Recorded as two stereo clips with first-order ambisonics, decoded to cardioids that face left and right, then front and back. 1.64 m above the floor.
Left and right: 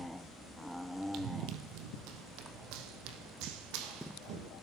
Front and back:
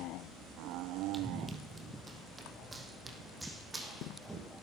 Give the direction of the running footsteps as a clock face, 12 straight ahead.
4 o'clock.